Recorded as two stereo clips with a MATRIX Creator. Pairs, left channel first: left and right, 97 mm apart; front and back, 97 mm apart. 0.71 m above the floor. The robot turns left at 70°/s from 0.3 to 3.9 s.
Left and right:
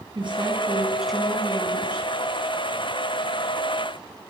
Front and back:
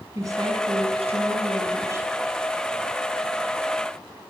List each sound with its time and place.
0.1 s a woman speaking: 125° right, 6 m; by 2.1 s 110° left, 6 m